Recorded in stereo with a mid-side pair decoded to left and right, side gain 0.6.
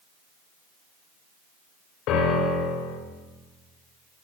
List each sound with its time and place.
2.1 s a piano: 65° left, 4.5 m